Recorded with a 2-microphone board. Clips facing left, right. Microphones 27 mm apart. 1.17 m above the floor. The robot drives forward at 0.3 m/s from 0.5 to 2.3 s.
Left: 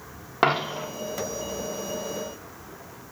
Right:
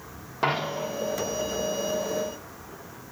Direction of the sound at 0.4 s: 50° left (ahead or behind).